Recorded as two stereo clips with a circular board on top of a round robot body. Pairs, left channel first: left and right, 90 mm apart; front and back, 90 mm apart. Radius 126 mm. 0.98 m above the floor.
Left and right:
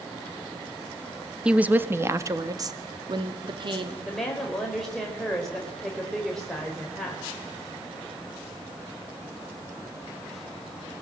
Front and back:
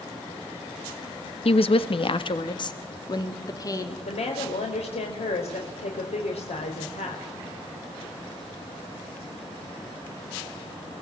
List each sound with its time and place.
1.4 s a woman speaking: 10° right, 1.8 m; by 4.0 s 55° right, 3.5 m
4.0 s a woman speaking: 5° left, 4.5 m